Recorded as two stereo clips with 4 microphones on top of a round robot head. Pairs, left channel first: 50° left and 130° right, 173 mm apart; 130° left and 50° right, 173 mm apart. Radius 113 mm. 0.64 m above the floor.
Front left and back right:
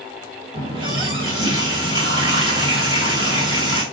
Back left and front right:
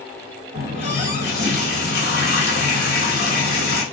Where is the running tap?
165° left, 1.6 m.